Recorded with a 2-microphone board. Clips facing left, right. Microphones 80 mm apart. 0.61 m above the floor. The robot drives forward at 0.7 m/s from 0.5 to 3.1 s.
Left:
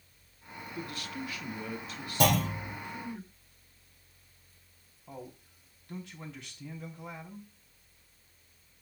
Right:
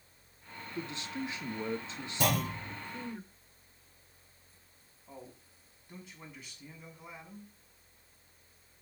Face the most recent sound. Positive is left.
turn(degrees=75)  # may be behind; listen again after turning